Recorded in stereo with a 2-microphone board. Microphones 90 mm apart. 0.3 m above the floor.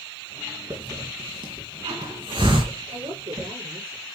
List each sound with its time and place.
0.7 s a hiss: 70° right (ahead or behind), 3 m
2.9 s a woman speaking: 75° right (ahead or behind), 6.5 m